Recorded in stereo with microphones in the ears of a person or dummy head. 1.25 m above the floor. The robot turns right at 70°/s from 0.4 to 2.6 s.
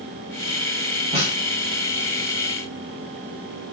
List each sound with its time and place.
1.1 s a snare drum: 25° right (ahead or behind), 0.8 m; by 1.4 s 45° right (ahead or behind), 0.8 m